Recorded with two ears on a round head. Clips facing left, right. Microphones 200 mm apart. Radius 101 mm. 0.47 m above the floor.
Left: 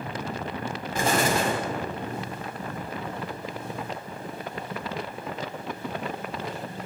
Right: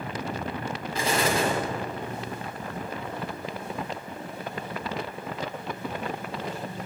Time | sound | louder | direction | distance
0.9 | an explosion | left 1 dB | 45° left (ahead or behind) | 1.3 m